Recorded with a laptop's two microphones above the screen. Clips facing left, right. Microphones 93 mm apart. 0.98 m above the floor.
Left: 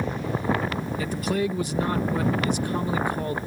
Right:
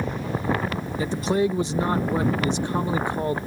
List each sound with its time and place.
1.0 s a man speaking: 25° right (ahead or behind)